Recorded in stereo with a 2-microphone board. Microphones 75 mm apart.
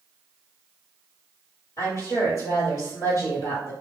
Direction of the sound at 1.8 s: 50° left (ahead or behind).